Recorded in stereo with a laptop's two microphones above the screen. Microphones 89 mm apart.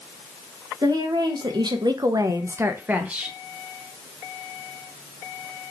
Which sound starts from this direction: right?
A woman speaking, at 0.8 s.